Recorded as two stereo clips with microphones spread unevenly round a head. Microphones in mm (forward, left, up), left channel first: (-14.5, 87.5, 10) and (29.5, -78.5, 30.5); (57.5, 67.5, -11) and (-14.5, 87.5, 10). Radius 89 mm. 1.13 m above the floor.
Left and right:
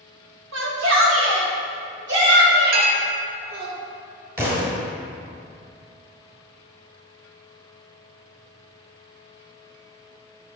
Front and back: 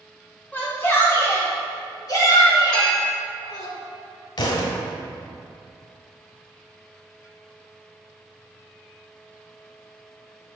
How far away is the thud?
About 1.7 m.